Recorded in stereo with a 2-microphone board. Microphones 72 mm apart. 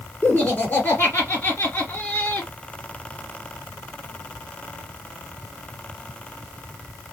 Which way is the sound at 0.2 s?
25° left (ahead or behind).